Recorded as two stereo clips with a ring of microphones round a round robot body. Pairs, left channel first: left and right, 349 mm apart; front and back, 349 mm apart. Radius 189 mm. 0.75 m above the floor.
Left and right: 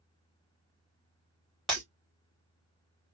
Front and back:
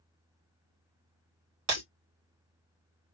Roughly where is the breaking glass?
Behind.